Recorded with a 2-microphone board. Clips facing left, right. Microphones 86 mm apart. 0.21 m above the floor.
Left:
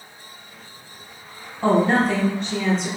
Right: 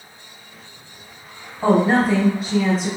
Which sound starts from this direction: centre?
A woman speaking, at 1.6 s.